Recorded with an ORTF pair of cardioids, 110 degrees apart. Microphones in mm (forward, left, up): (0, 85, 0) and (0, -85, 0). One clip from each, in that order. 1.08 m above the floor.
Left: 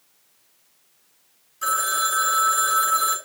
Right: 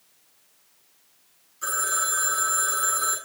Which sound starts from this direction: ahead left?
A phone ringing, at 1.6 s.